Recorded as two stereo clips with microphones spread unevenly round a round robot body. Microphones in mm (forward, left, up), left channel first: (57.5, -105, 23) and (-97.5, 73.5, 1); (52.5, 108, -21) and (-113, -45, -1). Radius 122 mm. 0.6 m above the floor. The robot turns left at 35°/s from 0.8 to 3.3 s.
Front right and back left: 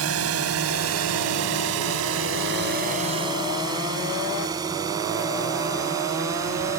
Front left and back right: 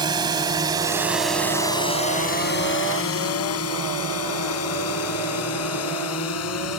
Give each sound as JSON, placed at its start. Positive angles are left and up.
{"t": 0.0, "sound": "a drone", "azimuth_deg": 150}